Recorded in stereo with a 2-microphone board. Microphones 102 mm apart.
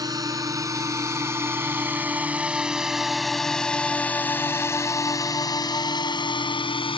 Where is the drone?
35° right (ahead or behind); by 7.0 s 55° left (ahead or behind).